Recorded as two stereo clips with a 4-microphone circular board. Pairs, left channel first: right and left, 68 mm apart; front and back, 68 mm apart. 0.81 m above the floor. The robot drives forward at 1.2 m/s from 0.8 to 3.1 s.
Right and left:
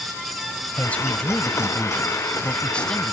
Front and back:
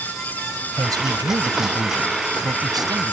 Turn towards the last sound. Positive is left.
turn(degrees=-165)